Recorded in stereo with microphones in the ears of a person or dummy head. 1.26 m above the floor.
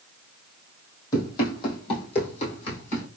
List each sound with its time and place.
1.1 s running footsteps: 20° left (ahead or behind), 2 m; by 3.1 s 40° left (ahead or behind), 3 m